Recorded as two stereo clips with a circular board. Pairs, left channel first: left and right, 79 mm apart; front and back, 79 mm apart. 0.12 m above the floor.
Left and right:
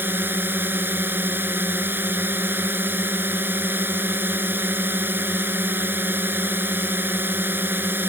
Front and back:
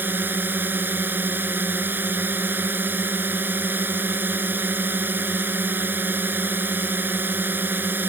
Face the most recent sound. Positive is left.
turn(degrees=-135)